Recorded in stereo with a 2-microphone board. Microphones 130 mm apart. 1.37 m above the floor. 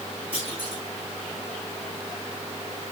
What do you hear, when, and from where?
0.3 s a clunk: 45° left (ahead or behind), 7.5 m